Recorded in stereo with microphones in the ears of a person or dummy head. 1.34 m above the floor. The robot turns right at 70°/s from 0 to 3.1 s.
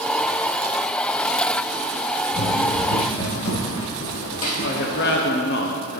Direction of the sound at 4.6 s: 60° left (ahead or behind).